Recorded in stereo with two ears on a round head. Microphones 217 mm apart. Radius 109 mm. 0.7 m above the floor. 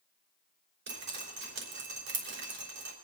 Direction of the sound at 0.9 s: 45° right (ahead or behind).